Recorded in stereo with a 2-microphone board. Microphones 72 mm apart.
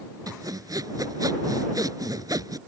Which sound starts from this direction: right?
Sawing, at 0.3 s.